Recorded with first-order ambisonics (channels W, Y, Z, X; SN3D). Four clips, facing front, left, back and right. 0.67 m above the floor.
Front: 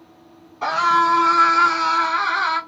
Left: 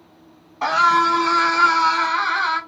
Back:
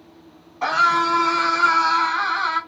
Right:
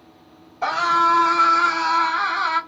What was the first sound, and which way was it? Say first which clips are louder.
A scream: left 2 dB, front 1 dB; 105° left.